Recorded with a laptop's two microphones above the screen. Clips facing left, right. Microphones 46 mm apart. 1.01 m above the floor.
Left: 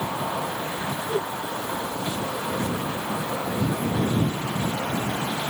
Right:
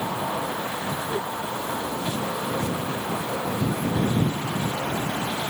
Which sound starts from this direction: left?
A whoosh, at 1.1 s.